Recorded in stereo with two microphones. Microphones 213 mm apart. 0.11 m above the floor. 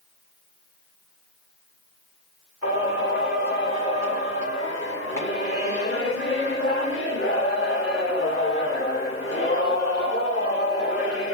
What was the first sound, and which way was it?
Singing, 85° left.